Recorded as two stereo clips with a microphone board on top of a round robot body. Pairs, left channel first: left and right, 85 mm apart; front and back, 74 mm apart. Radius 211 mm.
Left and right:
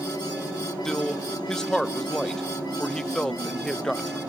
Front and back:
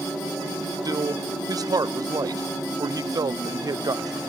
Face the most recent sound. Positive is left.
turn(degrees=170)